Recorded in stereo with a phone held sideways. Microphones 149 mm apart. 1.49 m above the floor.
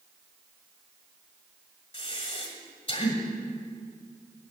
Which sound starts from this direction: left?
Breathing, at 1.9 s.